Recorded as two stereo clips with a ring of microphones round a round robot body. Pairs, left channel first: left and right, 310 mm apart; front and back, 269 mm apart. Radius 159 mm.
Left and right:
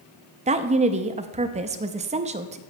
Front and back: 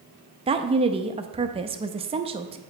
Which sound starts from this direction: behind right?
A woman speaking, at 0.5 s.